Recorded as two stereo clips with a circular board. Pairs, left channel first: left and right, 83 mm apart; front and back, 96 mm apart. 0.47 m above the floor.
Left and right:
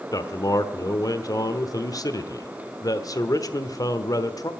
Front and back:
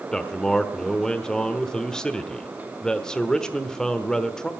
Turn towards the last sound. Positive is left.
turn(degrees=80)